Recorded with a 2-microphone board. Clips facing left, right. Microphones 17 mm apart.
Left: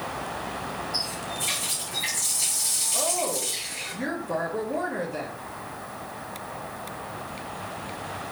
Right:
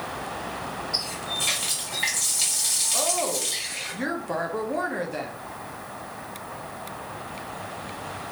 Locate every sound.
0.9 s a running tap: 70° right (ahead or behind), 2.5 m
2.9 s a woman speaking: 30° right (ahead or behind), 1.0 m